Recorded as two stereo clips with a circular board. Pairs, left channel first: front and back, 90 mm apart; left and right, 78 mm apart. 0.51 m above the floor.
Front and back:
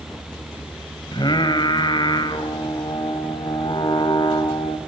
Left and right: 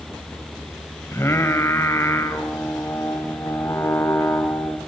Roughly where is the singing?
Ahead left.